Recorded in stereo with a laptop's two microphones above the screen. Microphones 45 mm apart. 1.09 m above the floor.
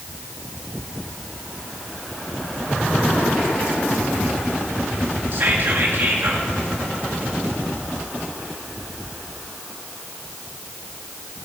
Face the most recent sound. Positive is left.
turn(degrees=-50)  # may be behind; listen again after turning